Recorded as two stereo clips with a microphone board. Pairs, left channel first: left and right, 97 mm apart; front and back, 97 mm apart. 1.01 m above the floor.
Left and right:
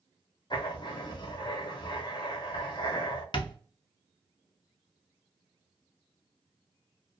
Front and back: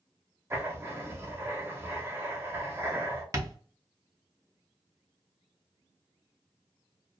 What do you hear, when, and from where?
0.5 s writing: 120° left, 0.7 m
3.3 s tapping: 125° left, 0.6 m